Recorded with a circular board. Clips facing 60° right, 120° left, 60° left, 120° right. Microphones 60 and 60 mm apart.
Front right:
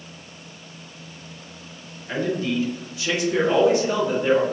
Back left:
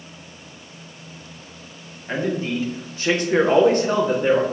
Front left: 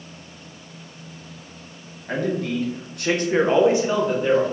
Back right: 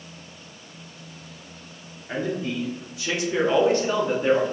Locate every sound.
2.1 s a man speaking: 60° left, 1.0 m; by 4.4 s 165° left, 0.6 m